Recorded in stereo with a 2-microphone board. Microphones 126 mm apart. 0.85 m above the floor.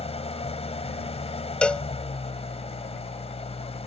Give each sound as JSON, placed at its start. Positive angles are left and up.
{"t": 0.0, "sound": "an engine running", "side_deg": 55}
{"t": 1.6, "sound": "a cowbell", "side_deg": 5}